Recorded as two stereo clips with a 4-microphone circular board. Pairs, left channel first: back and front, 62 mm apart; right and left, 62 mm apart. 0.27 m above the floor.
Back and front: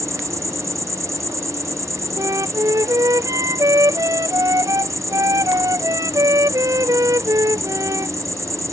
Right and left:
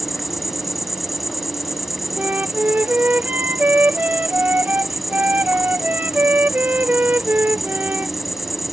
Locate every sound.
0.0 s an insect: 5° left
2.2 s a flute: 30° left